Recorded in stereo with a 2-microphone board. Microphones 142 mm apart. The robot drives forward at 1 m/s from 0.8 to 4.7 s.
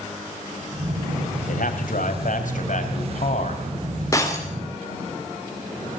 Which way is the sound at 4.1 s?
20° left (ahead or behind).